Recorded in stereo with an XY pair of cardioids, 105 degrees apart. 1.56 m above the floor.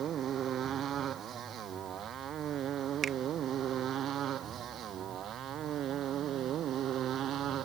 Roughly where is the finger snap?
Ahead right.